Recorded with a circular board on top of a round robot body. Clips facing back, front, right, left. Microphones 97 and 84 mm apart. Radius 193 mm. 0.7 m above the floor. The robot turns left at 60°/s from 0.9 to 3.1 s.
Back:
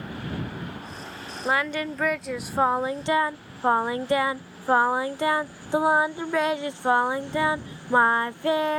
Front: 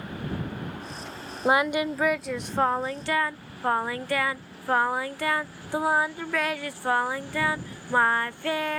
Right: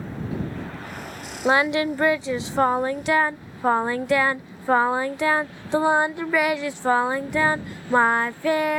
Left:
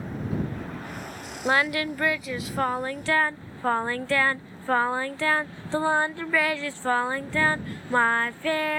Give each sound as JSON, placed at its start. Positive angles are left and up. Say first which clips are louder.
{"t": 1.4, "sound": "singing", "louder": "front 3 dB, right 4 dB", "azimuth_deg": -40}